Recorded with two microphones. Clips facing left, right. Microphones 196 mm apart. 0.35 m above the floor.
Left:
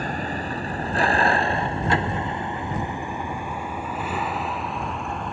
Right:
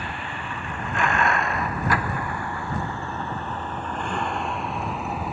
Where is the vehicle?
40° left (ahead or behind); by 5.3 s 5° right (ahead or behind).